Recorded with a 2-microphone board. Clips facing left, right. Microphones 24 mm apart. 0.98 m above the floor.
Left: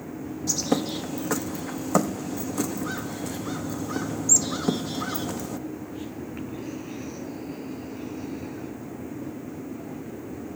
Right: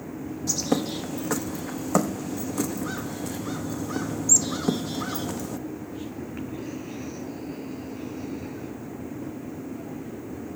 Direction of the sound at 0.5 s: Centre (ahead or behind).